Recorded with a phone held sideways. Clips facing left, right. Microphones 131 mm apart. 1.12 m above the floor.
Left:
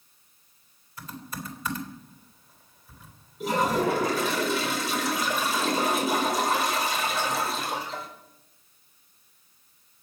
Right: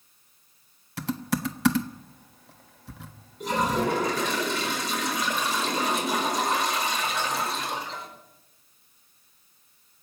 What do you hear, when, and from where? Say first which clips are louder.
1.0 s typing on a keyboard: right 10 dB; 85° right, 1.2 m
3.4 s a toilet flushing: left 1 dB; 5° left (ahead or behind), 4.5 m